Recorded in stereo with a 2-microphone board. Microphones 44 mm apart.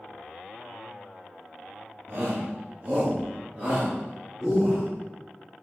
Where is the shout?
55° right (ahead or behind), 2.5 m; by 4.8 s 5° right (ahead or behind), 3 m.